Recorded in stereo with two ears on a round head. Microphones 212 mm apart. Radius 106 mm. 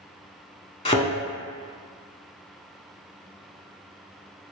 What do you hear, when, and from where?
0.8 s a thud: 25° left (ahead or behind), 0.6 m